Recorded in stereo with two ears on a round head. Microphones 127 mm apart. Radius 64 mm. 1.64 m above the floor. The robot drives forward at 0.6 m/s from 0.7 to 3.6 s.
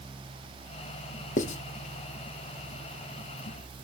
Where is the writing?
65° left (ahead or behind), 0.7 m; by 1.6 s 55° left (ahead or behind), 0.7 m.